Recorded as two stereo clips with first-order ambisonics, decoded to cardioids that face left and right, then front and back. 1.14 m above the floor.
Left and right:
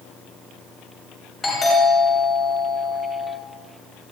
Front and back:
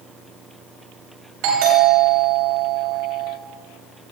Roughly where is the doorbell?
Behind.